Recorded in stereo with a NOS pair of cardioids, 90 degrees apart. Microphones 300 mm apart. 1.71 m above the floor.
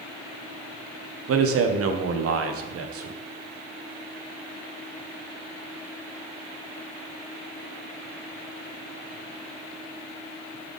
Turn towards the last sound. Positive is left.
turn(degrees=-55)